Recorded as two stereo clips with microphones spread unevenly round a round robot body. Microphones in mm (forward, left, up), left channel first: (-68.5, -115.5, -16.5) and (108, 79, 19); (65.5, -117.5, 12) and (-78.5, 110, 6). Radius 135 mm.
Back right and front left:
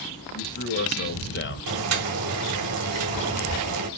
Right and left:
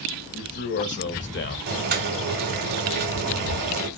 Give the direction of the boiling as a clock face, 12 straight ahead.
9 o'clock.